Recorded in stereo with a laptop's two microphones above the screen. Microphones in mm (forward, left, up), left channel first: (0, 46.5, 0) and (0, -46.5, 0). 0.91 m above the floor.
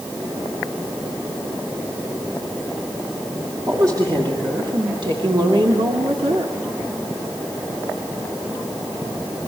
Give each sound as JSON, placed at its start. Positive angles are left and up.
{"t": 3.7, "sound": "a woman speaking", "side_deg": -40, "distance_m": 2.5}